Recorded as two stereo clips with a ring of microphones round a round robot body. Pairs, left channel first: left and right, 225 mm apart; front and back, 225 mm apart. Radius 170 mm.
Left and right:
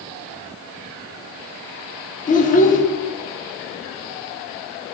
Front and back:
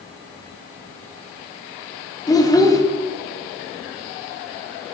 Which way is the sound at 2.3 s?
65° left.